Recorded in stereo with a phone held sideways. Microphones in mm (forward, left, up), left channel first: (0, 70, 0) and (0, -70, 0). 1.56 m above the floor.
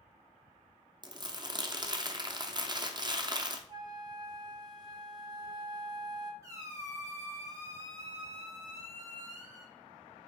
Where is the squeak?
20° right (ahead or behind), 1.1 m.